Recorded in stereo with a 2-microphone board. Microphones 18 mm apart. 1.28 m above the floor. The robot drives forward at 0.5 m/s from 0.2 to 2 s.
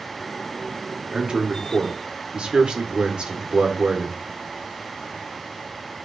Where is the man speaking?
65° right (ahead or behind), 1.1 m; by 4.2 s 80° right, 1.0 m.